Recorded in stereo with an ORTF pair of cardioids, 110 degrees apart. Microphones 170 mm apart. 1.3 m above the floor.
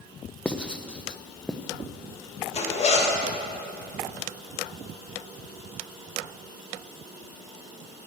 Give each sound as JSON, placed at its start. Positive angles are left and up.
{"t": 0.5, "sound": "writing", "azimuth_deg": 5, "distance_m": 0.7}
{"t": 2.5, "sound": "a zipper", "azimuth_deg": 40, "distance_m": 2.0}